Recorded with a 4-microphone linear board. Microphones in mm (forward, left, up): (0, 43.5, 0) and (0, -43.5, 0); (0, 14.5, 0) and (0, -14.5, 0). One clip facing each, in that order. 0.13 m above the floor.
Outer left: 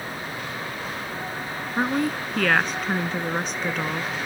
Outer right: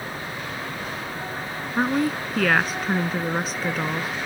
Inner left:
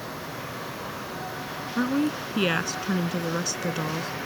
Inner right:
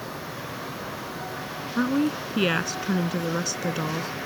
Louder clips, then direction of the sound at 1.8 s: Outer right 2 dB, inner right 1 dB; 5° right (ahead or behind).